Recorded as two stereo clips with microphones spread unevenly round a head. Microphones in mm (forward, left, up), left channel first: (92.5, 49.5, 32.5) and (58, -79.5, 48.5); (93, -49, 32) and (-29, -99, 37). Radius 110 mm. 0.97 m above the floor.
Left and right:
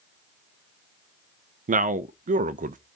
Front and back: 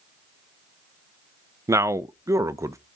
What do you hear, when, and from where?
1.7 s a man speaking: 90° right, 0.7 m